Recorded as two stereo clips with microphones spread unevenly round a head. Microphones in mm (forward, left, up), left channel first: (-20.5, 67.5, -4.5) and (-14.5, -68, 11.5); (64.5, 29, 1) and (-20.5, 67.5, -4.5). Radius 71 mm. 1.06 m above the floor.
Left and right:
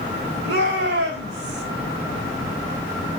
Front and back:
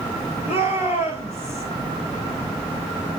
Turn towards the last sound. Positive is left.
turn(degrees=-75)